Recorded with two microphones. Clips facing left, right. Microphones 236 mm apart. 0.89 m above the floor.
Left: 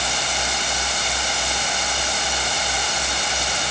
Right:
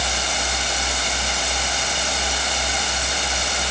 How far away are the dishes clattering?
I don't hear dishes clattering.